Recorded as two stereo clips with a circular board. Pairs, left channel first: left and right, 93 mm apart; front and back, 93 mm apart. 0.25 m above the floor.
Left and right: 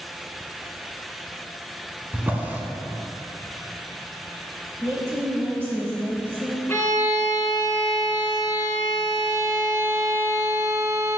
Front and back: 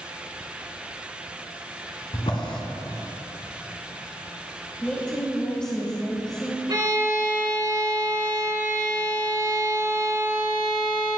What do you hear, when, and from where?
2.1 s a drawer: 20° right, 0.9 m
4.8 s a woman speaking: 70° right, 1.1 m
6.7 s a violin: 155° left, 2.5 m